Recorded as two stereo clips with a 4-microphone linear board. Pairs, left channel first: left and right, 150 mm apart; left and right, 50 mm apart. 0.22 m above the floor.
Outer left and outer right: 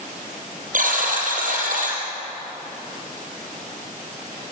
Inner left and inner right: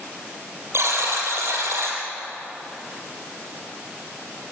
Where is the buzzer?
65° right (ahead or behind), 4 m.